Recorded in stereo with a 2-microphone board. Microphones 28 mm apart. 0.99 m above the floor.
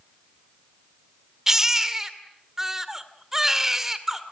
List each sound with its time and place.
1.5 s a baby crying: 15° right (ahead or behind), 2 m